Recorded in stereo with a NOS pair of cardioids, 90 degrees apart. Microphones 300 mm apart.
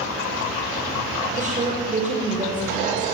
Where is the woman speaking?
25° right, 6 m.